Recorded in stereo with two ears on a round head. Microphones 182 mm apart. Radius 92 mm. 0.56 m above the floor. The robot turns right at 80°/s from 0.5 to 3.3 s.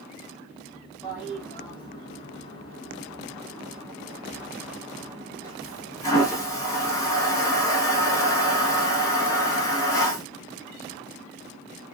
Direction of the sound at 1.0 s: 15° right (ahead or behind).